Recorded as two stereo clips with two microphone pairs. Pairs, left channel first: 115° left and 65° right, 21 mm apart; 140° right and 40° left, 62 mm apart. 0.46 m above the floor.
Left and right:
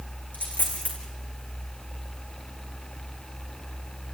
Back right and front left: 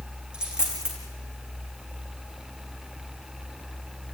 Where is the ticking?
No ticking in this recording.